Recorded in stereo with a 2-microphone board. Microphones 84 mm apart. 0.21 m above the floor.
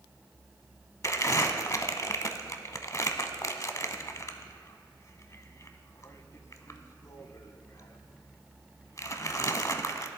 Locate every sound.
1.0 s crumpling: 40° left (ahead or behind), 0.5 m